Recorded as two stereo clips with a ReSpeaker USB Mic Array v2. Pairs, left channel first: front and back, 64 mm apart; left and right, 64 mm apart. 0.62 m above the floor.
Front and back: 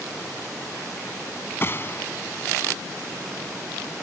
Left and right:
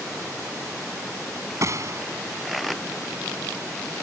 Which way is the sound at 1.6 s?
50° right.